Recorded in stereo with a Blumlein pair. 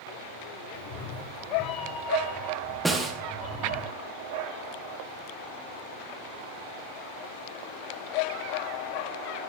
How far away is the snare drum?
About 2.0 m.